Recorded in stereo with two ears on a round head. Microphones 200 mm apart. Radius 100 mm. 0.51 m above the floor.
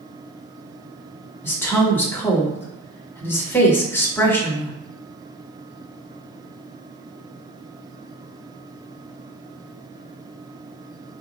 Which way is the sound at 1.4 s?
10° left (ahead or behind).